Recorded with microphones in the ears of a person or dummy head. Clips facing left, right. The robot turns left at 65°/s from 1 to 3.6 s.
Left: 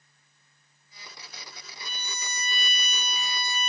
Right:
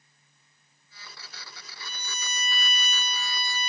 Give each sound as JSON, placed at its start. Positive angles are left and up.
{"t": 1.8, "sound": "a violin", "azimuth_deg": -85, "distance_m": 2.0}